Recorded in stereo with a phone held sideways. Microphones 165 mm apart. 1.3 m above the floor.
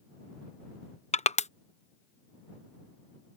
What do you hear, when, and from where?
1.1 s crushing: 45° left (ahead or behind)